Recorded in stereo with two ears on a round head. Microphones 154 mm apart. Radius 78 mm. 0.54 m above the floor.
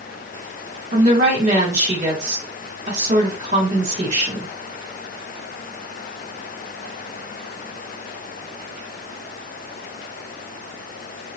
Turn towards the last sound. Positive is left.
turn(degrees=-45)  # may be behind; listen again after turning